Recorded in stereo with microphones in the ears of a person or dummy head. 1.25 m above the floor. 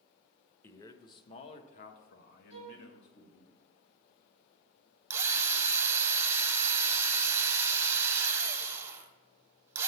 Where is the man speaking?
10° left (ahead or behind), 0.8 m; by 3.5 s 70° left (ahead or behind), 1.6 m.